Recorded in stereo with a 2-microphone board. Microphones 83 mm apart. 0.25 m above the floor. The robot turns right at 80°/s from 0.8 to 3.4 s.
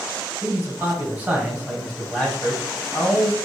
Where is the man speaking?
30° right (ahead or behind), 1.3 m; by 3.4 s 20° left (ahead or behind), 1.3 m.